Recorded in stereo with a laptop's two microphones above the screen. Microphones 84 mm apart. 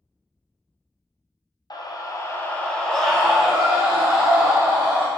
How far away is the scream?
About 0.5 m.